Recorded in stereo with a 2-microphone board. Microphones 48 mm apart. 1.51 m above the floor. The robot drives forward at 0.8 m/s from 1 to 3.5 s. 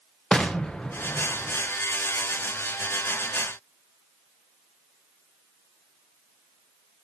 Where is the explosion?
15° left (ahead or behind), 1.0 m; by 1.7 s 10° left (ahead or behind), 1.5 m.